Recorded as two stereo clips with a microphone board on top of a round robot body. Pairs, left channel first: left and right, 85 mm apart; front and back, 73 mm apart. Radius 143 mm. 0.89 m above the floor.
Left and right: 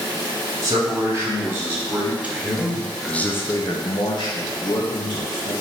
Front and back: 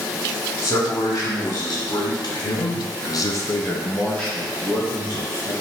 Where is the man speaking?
35° right, 1.9 m; by 5.5 s 105° left, 1.4 m.